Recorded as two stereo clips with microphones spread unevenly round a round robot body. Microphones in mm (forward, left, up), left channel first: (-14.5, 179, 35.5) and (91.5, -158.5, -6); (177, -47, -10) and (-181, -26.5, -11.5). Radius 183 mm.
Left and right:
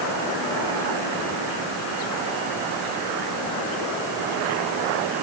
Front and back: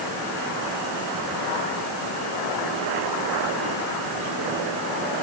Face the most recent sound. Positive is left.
No sound to turn to.